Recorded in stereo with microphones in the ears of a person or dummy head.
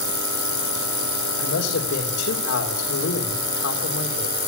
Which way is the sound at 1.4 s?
85° left.